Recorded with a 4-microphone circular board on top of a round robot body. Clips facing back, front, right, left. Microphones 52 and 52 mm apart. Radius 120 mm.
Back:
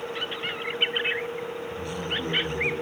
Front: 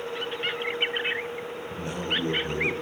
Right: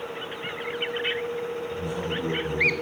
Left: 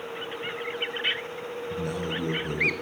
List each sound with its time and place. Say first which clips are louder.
1.7 s a man speaking: front 4 dB, right 1 dB; 60° left, 8 m